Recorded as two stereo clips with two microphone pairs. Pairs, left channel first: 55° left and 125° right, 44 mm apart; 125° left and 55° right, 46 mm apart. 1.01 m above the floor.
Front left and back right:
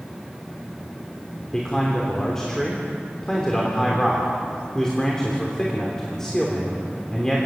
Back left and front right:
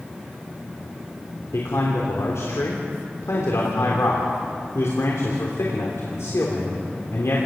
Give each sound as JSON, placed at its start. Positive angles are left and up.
{"t": 1.5, "sound": "a man speaking", "azimuth_deg": 135, "distance_m": 3.0}